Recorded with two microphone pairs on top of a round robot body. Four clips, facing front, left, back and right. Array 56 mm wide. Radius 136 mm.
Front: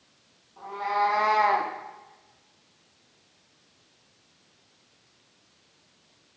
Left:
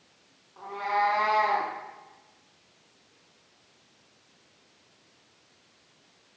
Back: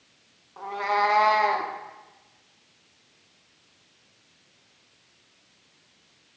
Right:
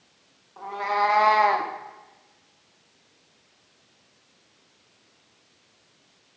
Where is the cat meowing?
165° right, 1.0 m; by 1.7 s 45° right, 0.7 m.